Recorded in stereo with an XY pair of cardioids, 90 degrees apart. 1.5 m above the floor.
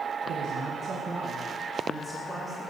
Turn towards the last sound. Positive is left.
turn(degrees=-15)